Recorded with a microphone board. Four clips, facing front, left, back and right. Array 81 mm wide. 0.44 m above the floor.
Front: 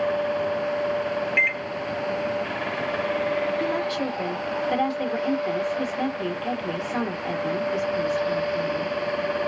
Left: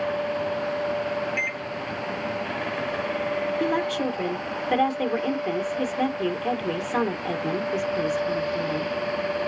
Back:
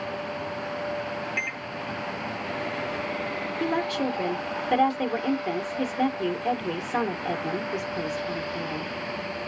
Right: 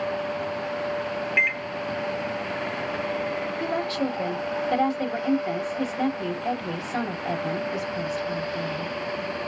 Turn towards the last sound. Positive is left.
turn(degrees=100)